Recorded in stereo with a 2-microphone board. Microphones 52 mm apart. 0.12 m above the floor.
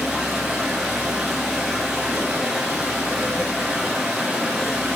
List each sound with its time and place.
0.0 s running water: centre (ahead or behind), 3 m